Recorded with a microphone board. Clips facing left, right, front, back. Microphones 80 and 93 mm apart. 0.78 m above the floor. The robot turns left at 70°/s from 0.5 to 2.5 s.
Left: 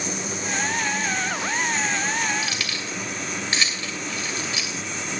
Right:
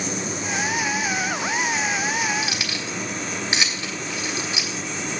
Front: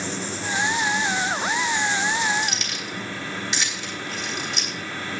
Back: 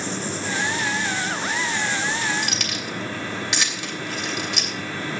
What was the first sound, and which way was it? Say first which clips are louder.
Keys jangling: right 1 dB, back 1 dB; 155° right.